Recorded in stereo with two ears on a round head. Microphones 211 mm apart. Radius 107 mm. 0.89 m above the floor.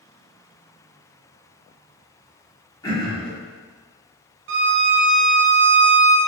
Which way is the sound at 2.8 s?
15° left (ahead or behind).